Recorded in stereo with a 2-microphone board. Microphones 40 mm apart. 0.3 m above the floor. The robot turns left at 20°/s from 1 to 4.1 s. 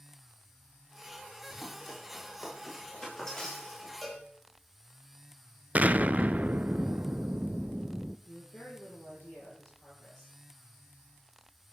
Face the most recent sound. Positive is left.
turn(degrees=40)  # may be behind; listen again after turning